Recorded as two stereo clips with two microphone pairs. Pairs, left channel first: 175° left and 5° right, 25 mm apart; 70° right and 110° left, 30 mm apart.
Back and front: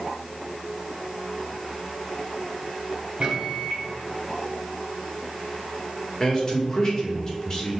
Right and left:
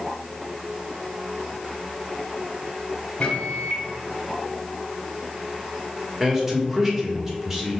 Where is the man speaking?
165° left, 1.2 m.